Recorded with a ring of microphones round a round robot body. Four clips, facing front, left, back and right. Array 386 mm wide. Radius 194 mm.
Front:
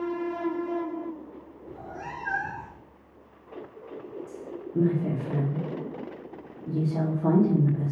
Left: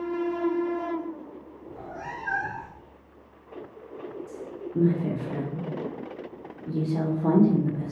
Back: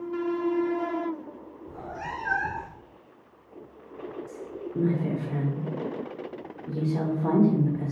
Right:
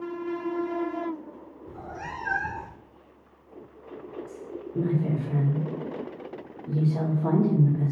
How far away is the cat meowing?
About 0.8 m.